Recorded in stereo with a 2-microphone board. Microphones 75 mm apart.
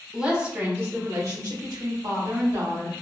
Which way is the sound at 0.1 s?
10° right (ahead or behind).